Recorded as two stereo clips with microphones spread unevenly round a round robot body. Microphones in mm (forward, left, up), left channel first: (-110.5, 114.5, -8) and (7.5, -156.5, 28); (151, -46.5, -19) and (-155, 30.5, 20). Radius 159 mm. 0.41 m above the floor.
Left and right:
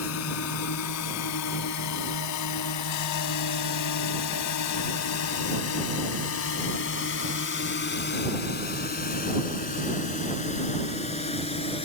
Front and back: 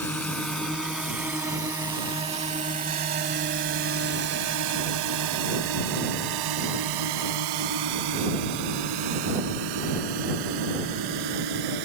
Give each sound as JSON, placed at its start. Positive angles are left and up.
{"t": 0.0, "sound": "a drone", "azimuth_deg": 70}